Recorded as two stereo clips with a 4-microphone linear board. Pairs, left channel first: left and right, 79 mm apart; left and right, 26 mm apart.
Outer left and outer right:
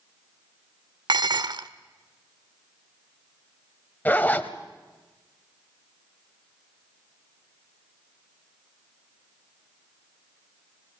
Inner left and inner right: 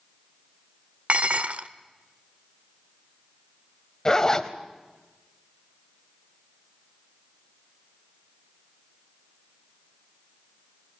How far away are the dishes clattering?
About 0.9 m.